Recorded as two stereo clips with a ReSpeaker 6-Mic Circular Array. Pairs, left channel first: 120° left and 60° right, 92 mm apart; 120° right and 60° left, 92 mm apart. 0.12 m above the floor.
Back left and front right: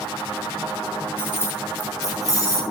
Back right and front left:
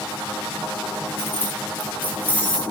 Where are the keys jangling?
Straight behind, 1.2 m; by 2.6 s 170° left, 2.5 m.